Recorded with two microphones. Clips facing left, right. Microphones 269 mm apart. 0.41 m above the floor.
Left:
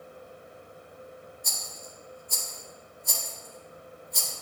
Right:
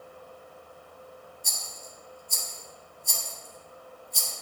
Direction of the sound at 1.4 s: 65° left (ahead or behind).